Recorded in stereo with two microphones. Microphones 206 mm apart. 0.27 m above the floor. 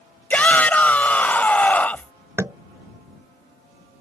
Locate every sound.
0.3 s a shout: 10° left (ahead or behind)
2.4 s tapping: 15° right (ahead or behind)